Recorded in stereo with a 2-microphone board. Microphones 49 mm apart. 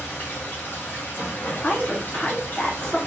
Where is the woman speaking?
20° left (ahead or behind), 1.2 m.